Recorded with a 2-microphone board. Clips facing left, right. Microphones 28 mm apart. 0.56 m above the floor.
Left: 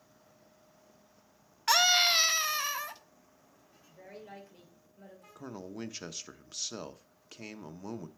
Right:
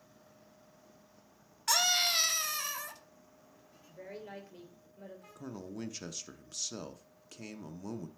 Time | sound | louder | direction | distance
1.7 | a scream | left 5 dB | 25° left (ahead or behind) | 0.8 m
3.9 | a woman speaking | right 3 dB | 15° right (ahead or behind) | 2.5 m
5.3 | a man speaking | left 1 dB | 20° left (ahead or behind) | 0.6 m